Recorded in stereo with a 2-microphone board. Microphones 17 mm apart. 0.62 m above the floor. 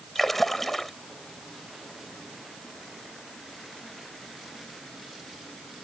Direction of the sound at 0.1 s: 10° left (ahead or behind).